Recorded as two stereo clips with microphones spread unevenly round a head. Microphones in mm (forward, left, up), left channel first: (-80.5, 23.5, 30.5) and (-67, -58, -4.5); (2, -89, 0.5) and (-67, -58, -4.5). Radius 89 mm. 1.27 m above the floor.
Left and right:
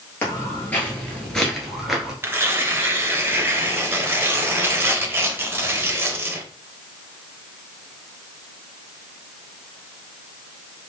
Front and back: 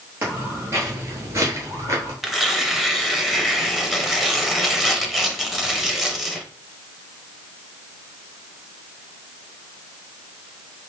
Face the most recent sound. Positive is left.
turn(degrees=-120)